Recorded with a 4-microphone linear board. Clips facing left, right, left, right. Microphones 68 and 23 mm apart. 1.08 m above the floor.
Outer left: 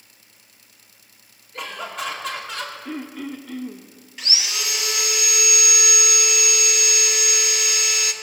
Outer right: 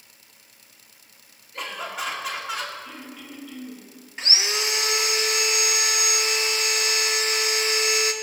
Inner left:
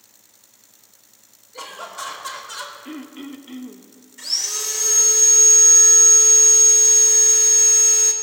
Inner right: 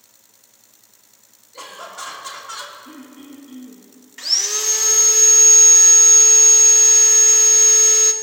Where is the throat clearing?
55° left (ahead or behind), 1.0 m.